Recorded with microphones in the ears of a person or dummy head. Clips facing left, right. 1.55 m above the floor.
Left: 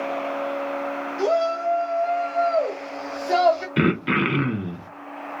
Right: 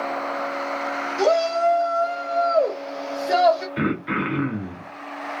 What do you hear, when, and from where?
1.2 s a shout: 65° right (ahead or behind), 1.1 m; by 3.7 s 15° right (ahead or behind), 1.1 m
3.8 s throat clearing: 40° left (ahead or behind), 0.5 m